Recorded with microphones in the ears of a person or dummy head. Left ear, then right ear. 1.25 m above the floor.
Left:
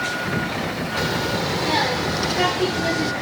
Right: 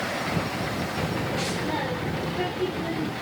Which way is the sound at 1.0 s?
50° left (ahead or behind).